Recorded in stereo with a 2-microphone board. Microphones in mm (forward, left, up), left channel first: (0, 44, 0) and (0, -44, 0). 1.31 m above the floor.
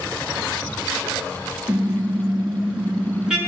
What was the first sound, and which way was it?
A car horn, 10° right (ahead or behind).